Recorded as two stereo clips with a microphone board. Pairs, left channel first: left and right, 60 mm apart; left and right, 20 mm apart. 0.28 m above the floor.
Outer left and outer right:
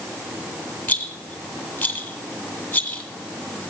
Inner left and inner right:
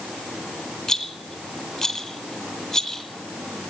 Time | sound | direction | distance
0.9 | a rattle | 20° left (ahead or behind) | 1.9 m